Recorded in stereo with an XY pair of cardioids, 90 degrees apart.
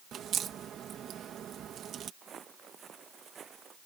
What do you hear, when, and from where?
0.1 s a crack: 70° right
2.2 s footsteps: 55° right